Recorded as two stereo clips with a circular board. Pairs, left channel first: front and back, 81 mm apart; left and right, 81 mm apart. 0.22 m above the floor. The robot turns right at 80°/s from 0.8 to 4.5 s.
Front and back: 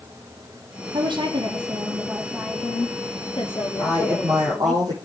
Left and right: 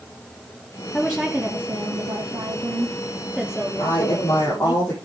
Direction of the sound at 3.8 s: 90° left.